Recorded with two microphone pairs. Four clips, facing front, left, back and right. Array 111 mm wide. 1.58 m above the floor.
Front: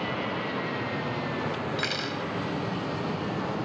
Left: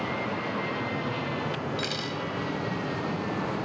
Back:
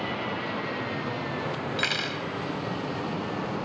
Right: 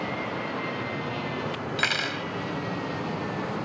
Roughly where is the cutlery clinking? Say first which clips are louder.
Right 2 dB, even; right.